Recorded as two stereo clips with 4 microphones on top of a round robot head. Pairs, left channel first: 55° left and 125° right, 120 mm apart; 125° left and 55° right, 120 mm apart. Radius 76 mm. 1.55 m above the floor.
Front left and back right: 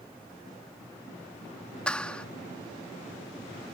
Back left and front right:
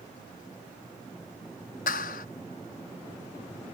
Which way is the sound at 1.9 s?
135° left.